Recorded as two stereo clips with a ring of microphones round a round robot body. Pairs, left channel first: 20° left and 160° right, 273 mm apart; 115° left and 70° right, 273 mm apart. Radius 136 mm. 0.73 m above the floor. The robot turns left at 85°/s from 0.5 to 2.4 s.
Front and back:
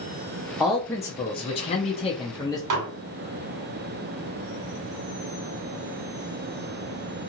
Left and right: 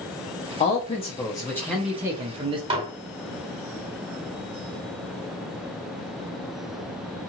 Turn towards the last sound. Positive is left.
turn(degrees=-140)